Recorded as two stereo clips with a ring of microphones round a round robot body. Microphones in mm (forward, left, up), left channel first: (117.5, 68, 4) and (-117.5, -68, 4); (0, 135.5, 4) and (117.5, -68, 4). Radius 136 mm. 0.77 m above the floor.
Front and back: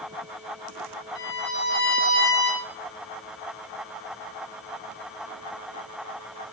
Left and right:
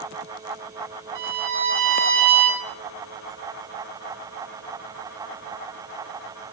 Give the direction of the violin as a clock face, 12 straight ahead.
1 o'clock.